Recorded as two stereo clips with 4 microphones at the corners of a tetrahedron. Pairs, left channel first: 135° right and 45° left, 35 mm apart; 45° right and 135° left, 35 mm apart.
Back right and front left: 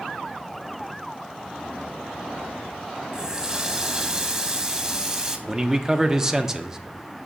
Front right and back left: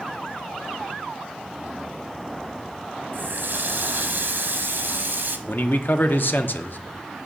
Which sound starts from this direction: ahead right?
A man speaking, at 5.5 s.